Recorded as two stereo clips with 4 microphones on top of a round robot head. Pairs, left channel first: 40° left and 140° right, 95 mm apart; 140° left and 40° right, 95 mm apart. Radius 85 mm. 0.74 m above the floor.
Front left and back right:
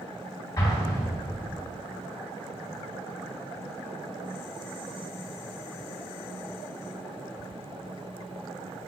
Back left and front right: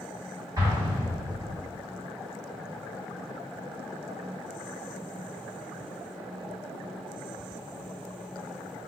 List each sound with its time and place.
0.6 s an explosion: straight ahead, 2.0 m